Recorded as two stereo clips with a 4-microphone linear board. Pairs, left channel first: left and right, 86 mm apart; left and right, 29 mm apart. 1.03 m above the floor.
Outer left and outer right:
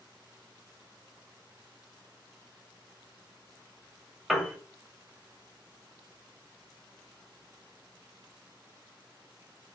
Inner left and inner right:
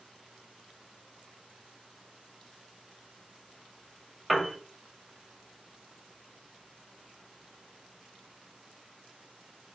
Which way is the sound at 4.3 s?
Centre (ahead or behind).